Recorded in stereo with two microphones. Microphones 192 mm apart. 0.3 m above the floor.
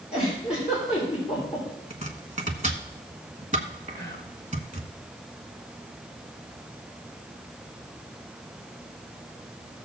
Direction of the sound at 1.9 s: 40° right (ahead or behind).